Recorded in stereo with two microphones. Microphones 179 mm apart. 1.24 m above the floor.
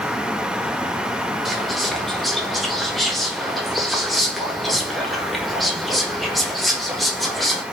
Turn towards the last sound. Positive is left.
turn(degrees=0)  # may be behind; listen again after turning